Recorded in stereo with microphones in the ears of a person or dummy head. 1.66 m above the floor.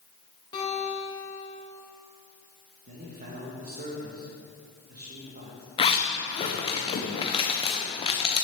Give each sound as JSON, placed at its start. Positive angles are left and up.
{"t": 0.5, "sound": "a guitar", "side_deg": 20, "distance_m": 2.5}
{"t": 2.9, "sound": "a man speaking", "side_deg": -45, "distance_m": 2.0}
{"t": 5.8, "sound": "a zipper", "side_deg": 30, "distance_m": 1.0}